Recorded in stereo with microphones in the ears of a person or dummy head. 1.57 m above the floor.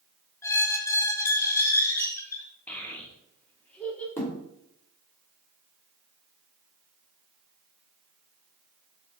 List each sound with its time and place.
0.4 s a squeak: 20° left (ahead or behind), 1.3 m
2.7 s a child speaking: 15° left (ahead or behind), 2.5 m
4.2 s a thud: 20° left (ahead or behind), 2.5 m